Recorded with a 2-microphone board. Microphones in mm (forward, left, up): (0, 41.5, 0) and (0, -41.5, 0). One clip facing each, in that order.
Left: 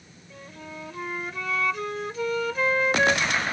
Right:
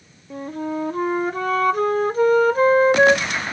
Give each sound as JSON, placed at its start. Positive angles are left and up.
{"t": 0.3, "sound": "a flute", "side_deg": -45}